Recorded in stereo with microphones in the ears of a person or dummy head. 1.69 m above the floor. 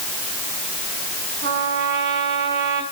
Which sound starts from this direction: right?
A trumpet, at 1.4 s.